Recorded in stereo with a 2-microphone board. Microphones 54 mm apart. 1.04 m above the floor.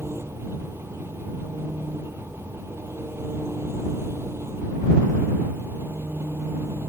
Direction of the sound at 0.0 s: 50° right (ahead or behind).